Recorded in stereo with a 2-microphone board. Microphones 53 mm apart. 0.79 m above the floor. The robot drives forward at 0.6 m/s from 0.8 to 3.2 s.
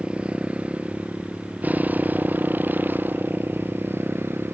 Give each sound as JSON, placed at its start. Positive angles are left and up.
{"t": 0.0, "sound": "a motorcycle", "side_deg": -25}